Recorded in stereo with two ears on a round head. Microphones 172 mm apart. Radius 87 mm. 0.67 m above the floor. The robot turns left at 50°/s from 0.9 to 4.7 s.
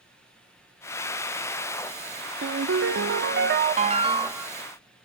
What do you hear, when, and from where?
2.4 s a ringtone: 70° right, 0.7 m; by 4.5 s 175° right, 0.7 m